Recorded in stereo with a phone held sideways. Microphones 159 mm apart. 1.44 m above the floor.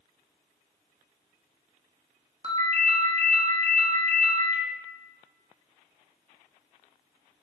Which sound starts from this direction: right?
A ringtone, at 2.4 s.